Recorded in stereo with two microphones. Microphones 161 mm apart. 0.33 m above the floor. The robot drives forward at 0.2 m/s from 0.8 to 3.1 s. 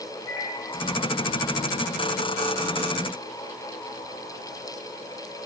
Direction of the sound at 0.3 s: 20° right (ahead or behind).